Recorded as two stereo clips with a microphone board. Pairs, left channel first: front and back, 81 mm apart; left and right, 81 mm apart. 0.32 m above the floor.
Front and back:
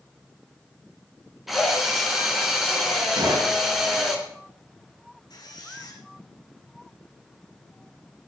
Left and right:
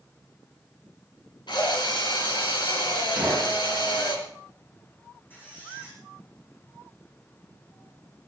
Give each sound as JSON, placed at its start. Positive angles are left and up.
{"t": 1.5, "sound": "a drill", "azimuth_deg": 90, "distance_m": 3.5}
{"t": 3.2, "sound": "a gunshot", "azimuth_deg": -170, "distance_m": 7.5}
{"t": 5.3, "sound": "a squeak", "azimuth_deg": 30, "distance_m": 8.0}